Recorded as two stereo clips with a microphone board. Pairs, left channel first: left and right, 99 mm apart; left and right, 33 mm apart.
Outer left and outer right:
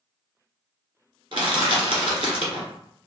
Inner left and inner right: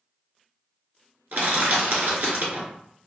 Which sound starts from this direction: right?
Crushing, at 1.3 s.